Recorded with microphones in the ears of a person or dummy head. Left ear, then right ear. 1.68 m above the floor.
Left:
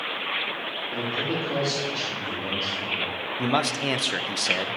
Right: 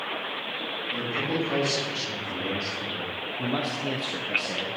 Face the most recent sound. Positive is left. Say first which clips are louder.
# left 6 dB
turn(degrees=30)  # may be behind; listen again after turning